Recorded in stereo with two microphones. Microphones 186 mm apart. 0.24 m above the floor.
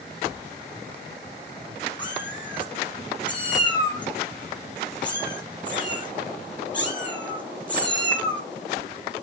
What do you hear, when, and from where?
2.0 s a cat meowing: 25° left (ahead or behind), 4 m